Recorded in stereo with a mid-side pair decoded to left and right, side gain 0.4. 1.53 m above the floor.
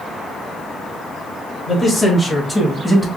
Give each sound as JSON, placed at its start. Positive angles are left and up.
{"t": 1.7, "sound": "a man speaking", "azimuth_deg": 40, "distance_m": 2.0}